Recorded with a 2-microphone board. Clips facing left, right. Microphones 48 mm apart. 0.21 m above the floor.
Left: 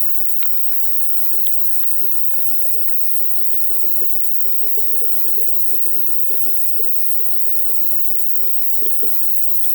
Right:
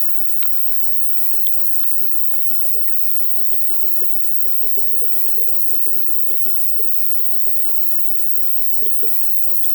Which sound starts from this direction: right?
An insect, at 0.0 s.